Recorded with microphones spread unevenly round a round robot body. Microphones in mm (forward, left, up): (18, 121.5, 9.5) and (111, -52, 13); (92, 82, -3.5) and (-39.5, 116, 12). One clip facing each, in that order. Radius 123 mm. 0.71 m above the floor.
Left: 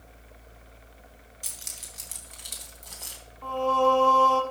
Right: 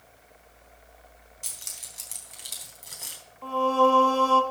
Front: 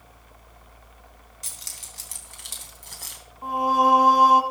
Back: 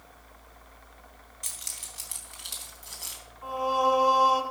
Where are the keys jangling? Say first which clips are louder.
Left 2 dB, front 1 dB; 40° left, 3.5 m; by 3.2 s 15° left, 3.5 m.